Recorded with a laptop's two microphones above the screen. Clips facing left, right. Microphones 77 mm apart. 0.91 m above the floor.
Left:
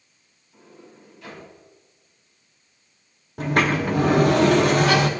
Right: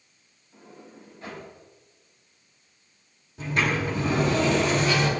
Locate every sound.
0.5 s a sliding door: 40° right (ahead or behind), 4.5 m
3.4 s a sliding door: 60° left (ahead or behind), 0.8 m